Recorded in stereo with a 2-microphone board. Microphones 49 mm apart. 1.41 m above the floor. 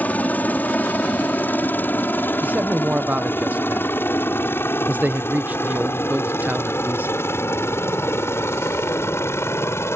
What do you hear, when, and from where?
0.0 s a helicopter: 35° left (ahead or behind); by 10.0 s 60° left (ahead or behind)
2.4 s a man speaking: 35° right (ahead or behind)